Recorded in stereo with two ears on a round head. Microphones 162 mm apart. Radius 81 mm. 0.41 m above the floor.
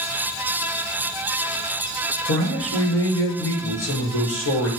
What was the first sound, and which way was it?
A man speaking, 75° left (ahead or behind).